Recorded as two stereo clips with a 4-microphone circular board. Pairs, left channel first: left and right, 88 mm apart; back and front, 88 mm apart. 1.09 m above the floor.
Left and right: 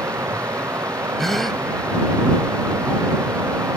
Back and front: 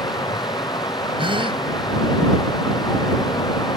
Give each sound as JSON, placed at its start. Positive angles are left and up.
{"t": 0.0, "sound": "running water", "azimuth_deg": -145}
{"t": 1.2, "sound": "a gasp", "azimuth_deg": 5}